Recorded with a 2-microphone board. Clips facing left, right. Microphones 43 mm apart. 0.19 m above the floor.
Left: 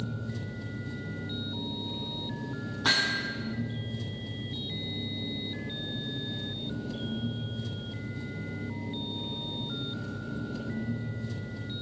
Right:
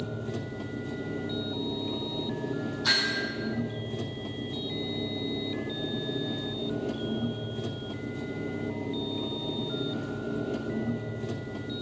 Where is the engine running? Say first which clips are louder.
Right 3 dB; 75° right (ahead or behind), 2.5 m.